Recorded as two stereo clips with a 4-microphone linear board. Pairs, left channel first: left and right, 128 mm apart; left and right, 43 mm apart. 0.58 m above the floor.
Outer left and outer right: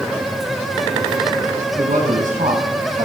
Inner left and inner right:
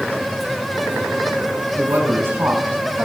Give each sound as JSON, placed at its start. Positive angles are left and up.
{"t": 1.6, "sound": "a man speaking", "side_deg": -80, "distance_m": 6.0}